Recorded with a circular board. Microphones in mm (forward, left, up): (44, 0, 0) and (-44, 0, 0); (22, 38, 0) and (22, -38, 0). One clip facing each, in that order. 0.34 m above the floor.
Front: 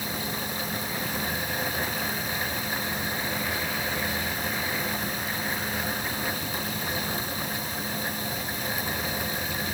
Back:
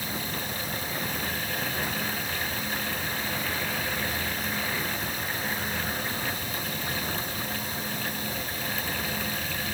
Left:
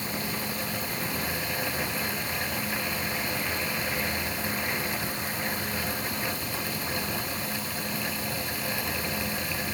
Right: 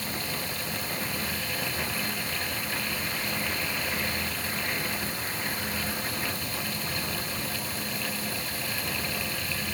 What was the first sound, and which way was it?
Only background noise.